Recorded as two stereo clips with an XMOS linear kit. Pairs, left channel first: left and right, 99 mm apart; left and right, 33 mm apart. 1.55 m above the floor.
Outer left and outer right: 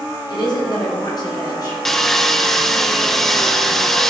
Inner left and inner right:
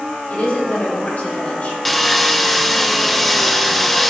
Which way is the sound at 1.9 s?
5° left (ahead or behind).